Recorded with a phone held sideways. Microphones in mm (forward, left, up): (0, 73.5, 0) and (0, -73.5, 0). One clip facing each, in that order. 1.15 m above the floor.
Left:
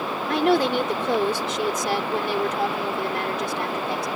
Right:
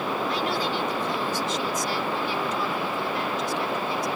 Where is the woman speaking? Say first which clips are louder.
Left 7 dB; 65° left (ahead or behind).